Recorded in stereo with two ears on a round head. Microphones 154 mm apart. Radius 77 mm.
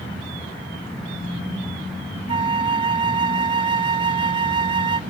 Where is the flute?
25° right (ahead or behind), 0.6 m.